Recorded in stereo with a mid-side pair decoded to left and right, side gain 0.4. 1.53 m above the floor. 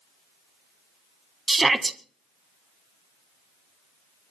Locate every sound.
1.5 s a shout: 25° right, 1.9 m